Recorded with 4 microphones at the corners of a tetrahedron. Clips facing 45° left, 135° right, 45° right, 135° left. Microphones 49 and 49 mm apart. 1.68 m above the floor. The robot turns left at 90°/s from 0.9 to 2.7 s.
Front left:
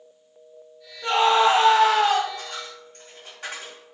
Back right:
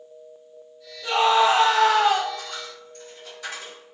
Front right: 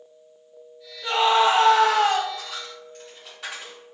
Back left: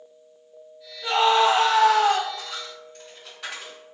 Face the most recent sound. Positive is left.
turn(degrees=45)